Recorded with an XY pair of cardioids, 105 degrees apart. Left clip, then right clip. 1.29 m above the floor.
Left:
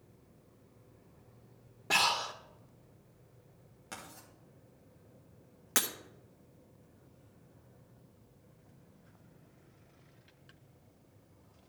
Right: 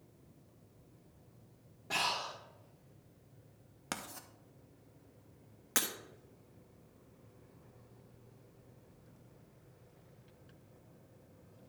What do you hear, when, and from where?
1.9 s breathing: 60° left, 1.3 m
3.9 s writing: 70° right, 1.3 m
5.8 s breaking glass: 20° left, 1.3 m